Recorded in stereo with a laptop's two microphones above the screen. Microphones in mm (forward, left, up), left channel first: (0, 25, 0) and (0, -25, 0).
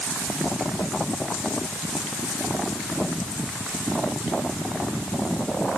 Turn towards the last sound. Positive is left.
No sound to turn to.